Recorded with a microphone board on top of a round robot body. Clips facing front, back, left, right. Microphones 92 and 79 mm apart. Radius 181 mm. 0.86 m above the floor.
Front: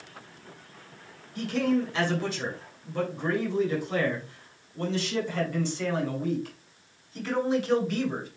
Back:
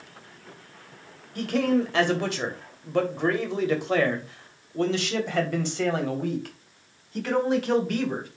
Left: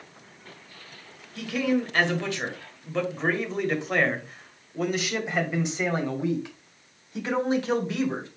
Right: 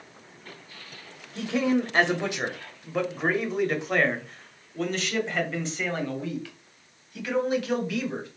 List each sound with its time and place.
1.4 s a man speaking: 150° right, 3 m; by 8.3 s 145° left, 4.5 m